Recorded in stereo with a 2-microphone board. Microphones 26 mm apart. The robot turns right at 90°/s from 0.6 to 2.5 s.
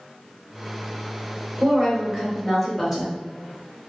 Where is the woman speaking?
100° right, 1.3 m; by 3.1 s 15° right, 1.3 m.